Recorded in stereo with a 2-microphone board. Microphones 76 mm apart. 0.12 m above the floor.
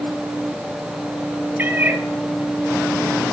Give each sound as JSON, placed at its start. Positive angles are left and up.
{"t": 1.6, "sound": "a cat meowing", "side_deg": -25, "distance_m": 1.4}